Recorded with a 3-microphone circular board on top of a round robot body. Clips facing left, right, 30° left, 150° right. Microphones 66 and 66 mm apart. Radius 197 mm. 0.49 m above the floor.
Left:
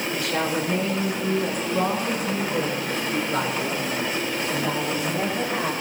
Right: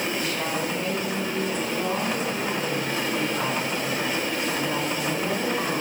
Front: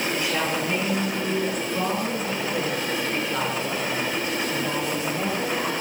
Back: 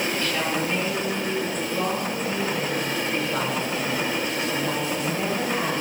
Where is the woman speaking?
105° left, 8 m; by 5.7 s 135° left, 13 m.